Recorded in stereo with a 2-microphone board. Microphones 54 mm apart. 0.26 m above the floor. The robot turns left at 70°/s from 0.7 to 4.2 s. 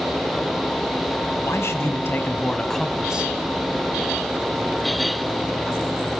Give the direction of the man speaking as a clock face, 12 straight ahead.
9 o'clock.